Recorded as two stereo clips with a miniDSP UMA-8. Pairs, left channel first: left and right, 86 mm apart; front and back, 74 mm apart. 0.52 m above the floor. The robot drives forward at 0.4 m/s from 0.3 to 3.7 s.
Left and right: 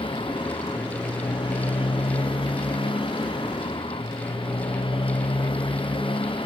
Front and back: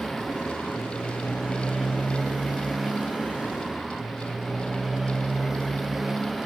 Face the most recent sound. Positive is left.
turn(degrees=95)